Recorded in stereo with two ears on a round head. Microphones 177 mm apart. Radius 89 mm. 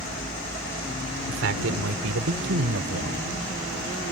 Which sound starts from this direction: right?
A man speaking, at 1.3 s.